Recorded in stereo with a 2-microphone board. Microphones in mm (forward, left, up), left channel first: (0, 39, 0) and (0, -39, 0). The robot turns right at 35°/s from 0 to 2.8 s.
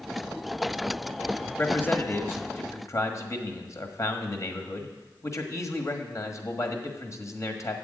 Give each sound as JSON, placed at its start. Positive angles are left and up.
{"t": 1.6, "sound": "a man speaking", "azimuth_deg": 30, "distance_m": 1.4}